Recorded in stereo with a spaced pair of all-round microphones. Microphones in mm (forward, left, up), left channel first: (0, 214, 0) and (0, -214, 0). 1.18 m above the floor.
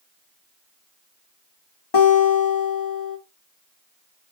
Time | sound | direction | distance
1.9 | a guitar | 60° left (ahead or behind) | 1.1 m